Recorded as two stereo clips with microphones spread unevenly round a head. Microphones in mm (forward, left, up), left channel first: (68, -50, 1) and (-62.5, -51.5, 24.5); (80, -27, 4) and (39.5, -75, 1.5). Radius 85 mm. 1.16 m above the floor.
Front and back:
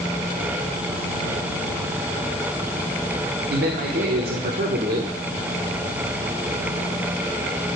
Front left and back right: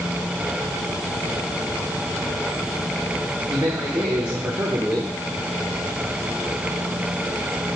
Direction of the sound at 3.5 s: 165° left.